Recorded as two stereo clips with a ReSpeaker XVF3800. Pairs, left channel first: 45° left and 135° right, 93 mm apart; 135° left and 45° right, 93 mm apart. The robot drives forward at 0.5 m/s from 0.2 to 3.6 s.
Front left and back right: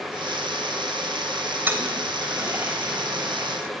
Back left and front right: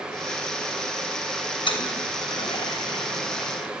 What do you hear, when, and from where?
1.7 s a toilet flushing: 160° left, 3 m; by 3.7 s 165° left, 4 m